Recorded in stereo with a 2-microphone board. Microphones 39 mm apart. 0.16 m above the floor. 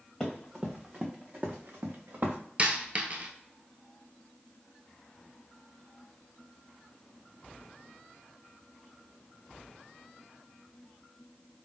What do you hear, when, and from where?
0.2 s running footsteps: 5° left (ahead or behind), 0.9 m; by 2.4 s 65° right (ahead or behind), 1.1 m
2.6 s a dropped coin: 35° right (ahead or behind), 0.5 m